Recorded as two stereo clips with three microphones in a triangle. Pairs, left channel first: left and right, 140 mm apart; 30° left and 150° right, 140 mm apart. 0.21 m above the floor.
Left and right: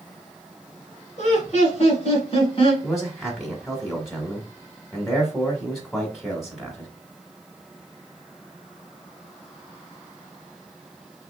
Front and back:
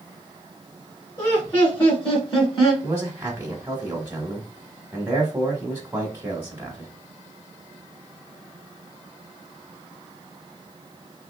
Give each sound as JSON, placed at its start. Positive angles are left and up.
{"t": 1.2, "sound": "laughter", "azimuth_deg": 75, "distance_m": 2.0}
{"t": 2.8, "sound": "a man speaking", "azimuth_deg": 180, "distance_m": 1.0}